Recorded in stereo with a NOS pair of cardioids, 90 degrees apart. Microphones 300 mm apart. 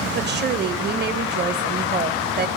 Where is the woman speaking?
35° right, 1.2 m.